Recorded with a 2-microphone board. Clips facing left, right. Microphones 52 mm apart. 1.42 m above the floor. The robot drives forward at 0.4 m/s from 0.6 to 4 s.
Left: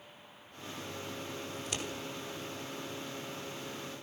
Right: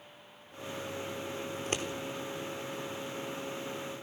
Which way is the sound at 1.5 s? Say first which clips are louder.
Right 5 dB; 45° right (ahead or behind).